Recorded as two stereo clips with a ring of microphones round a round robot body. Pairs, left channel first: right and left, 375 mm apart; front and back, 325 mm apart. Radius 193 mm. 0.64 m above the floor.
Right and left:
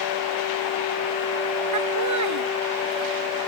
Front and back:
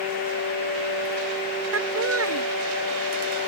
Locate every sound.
1.7 s laughter: 135° left; by 3.5 s 140° left